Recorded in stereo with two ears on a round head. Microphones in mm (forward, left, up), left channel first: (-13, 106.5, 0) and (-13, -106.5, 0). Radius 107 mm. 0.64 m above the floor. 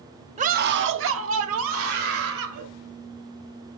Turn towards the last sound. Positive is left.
turn(degrees=-65)  # may be behind; listen again after turning